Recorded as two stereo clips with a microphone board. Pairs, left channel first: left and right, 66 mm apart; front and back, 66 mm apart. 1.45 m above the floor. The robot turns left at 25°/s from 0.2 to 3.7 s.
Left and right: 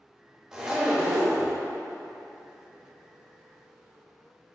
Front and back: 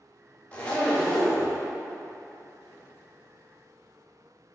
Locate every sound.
0.5 s a zipper: 25° right, 0.8 m; by 1.6 s 50° right, 0.8 m